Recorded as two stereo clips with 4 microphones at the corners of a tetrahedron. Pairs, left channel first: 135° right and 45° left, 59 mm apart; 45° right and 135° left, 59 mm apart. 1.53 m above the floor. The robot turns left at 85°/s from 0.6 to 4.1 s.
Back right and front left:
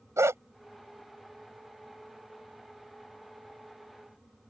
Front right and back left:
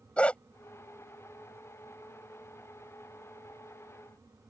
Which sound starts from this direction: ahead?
A dog barking, at 0.2 s.